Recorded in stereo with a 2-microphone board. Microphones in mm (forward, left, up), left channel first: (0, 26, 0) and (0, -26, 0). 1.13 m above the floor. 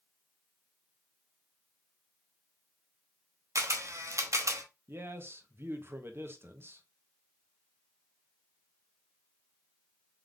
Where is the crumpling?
I don't hear crumpling.